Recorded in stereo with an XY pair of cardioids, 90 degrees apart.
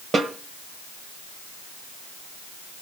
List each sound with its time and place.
0.1 s a snare drum: 50° right, 2 m